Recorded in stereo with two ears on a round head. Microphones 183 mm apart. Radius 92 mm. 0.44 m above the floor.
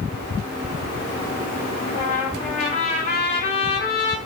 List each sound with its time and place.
1.9 s a trumpet: 35° left (ahead or behind), 1.3 m